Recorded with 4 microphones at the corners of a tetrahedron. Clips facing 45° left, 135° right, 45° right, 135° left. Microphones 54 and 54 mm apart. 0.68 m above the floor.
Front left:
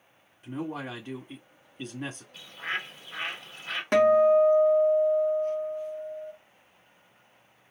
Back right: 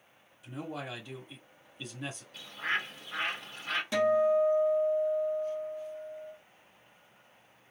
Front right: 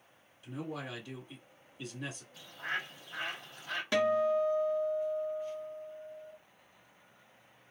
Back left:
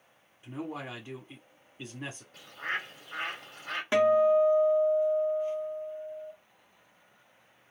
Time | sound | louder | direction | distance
0.4 | a man speaking | front left 5 dB, back left 3 dB | 90° left | 1.4 m
2.3 | a bird | back right 2 dB, back left 3 dB | 135° left | 2.5 m
3.9 | a guitar | front left 7 dB, back left 6 dB | 75° left | 0.8 m